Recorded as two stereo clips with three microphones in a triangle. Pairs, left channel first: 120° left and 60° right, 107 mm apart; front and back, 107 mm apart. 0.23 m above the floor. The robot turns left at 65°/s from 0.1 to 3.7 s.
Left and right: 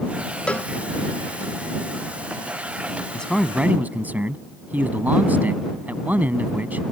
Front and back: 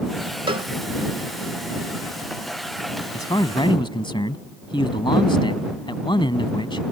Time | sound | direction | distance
0.5 | a cowbell | 160° right | ?
3.1 | a man speaking | 45° left | ?